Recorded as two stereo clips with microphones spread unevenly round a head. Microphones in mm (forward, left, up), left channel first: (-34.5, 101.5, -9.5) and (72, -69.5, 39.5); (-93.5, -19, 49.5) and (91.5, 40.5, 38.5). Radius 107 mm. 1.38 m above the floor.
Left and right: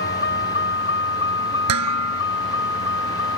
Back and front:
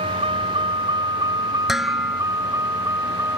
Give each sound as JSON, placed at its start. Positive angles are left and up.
{"t": 0.0, "sound": "a vehicle", "azimuth_deg": 80}
{"t": 1.7, "sound": "dishes clattering", "azimuth_deg": -70}